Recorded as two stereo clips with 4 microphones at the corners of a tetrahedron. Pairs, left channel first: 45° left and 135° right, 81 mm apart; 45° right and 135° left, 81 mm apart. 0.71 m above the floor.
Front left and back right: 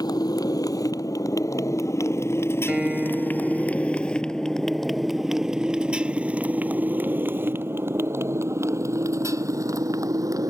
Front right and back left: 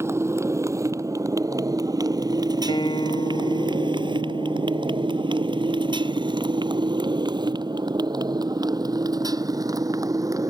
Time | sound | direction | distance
0.0 | a motorcycle | 80° left | ?
2.7 | a guitar | 60° right | ?